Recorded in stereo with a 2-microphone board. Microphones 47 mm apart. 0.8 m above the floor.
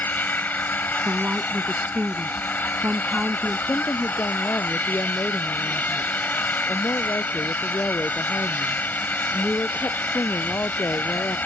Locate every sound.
0.0 s an engine running: 40° left (ahead or behind)
1.1 s a woman speaking: 30° right (ahead or behind)
3.7 s a woman speaking: 65° left (ahead or behind)